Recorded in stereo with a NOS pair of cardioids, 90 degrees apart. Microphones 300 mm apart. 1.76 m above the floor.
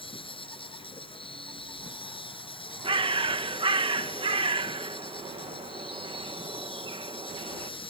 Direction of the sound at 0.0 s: 20° left.